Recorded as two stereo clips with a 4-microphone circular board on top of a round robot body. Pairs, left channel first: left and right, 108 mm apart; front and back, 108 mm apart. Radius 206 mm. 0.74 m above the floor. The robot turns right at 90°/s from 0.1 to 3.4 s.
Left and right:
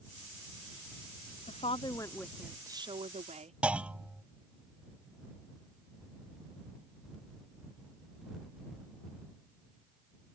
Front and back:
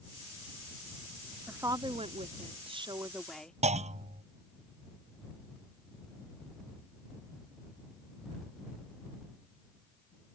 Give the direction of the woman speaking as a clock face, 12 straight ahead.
9 o'clock.